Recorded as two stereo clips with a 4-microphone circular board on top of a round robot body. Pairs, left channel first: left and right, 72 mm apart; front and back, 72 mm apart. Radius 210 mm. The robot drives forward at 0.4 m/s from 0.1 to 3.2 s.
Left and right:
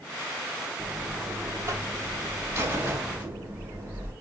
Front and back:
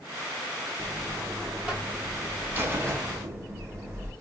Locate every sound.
0.8 s a buzzer: 80° right, 1.3 m; by 4.1 s 145° right, 1.5 m